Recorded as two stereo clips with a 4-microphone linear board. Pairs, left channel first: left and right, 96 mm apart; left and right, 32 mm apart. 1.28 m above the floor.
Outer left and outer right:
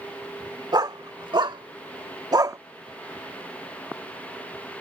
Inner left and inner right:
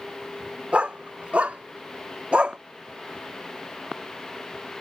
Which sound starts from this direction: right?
A dog barking, at 0.7 s.